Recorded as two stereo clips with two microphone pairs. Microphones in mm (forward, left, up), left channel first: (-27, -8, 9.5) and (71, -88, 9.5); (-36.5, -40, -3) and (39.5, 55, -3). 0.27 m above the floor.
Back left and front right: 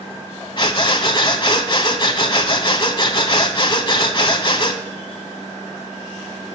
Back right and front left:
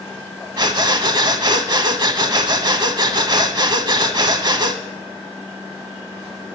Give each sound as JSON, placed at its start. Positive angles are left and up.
{"t": 0.6, "sound": "breathing", "azimuth_deg": 95, "distance_m": 0.8}